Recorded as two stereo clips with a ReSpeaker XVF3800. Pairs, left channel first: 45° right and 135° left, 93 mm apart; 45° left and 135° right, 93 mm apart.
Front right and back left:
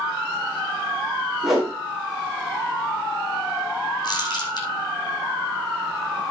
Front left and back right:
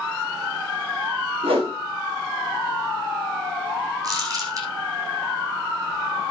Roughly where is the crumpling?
Right.